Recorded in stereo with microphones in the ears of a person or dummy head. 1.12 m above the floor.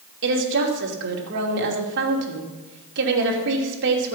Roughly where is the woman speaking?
Right.